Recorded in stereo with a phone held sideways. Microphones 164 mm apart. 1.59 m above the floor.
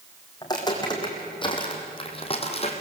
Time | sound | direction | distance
0.4 | footsteps | 25° left (ahead or behind) | 4.5 m